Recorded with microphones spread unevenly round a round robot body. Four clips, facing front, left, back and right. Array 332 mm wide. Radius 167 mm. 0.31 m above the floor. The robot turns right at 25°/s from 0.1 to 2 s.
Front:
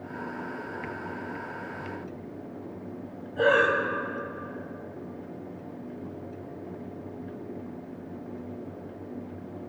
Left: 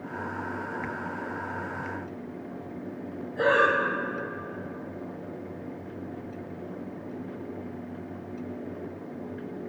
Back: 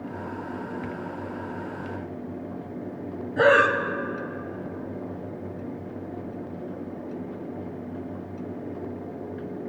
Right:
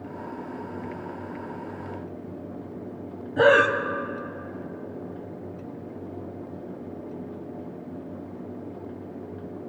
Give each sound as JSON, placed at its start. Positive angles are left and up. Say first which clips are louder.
{"t": 3.4, "sound": "breathing", "louder": "right 4 dB, back 4 dB", "azimuth_deg": -130, "distance_m": 0.6}